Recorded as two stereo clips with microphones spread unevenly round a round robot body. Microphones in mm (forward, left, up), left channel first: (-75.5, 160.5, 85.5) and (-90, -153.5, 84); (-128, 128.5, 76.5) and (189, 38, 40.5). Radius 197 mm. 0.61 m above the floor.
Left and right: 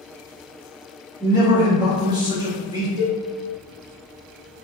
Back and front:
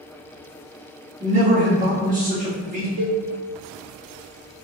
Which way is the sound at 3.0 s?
35° right.